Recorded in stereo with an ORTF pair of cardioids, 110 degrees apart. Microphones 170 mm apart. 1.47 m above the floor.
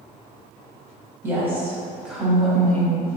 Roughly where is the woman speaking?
Ahead.